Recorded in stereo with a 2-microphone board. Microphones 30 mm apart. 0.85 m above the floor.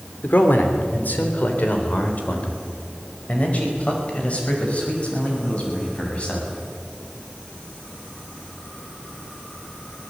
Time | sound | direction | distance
0.2 | a man speaking | 70° left (ahead or behind) | 3 m